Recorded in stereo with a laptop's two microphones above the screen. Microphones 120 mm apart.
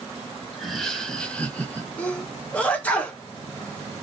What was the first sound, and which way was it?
Laughter, centre (ahead or behind).